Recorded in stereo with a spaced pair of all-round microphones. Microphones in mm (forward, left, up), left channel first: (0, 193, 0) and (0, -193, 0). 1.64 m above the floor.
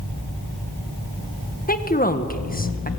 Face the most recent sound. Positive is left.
turn(degrees=20)  # may be behind; listen again after turning